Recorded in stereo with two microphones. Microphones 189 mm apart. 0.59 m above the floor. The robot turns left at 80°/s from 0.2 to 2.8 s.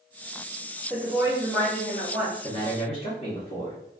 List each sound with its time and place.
0.9 s a woman speaking: 145° right, 1.4 m; by 2.3 s 100° left, 1.4 m
2.4 s a man speaking: 25° left (ahead or behind), 0.8 m; by 3.8 s 35° left (ahead or behind), 0.8 m